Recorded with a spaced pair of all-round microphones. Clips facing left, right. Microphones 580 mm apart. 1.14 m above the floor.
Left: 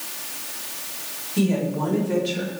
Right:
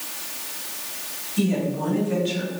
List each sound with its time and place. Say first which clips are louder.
1.4 s a woman speaking: left 1 dB; 80° left, 5.5 m; by 2.5 s 85° left, 5.5 m